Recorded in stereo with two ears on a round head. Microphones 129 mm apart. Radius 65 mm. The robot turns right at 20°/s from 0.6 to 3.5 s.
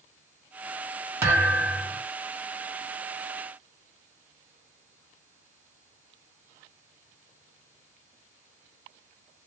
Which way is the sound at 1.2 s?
15° right (ahead or behind).